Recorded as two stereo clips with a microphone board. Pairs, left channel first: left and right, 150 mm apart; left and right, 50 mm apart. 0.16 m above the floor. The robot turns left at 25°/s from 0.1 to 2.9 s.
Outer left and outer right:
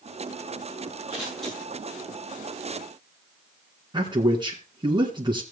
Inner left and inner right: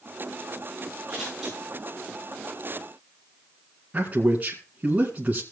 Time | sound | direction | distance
1.1 | scissors | 5° right (ahead or behind) | 7.5 m
3.9 | a man speaking | 30° right (ahead or behind) | 1.9 m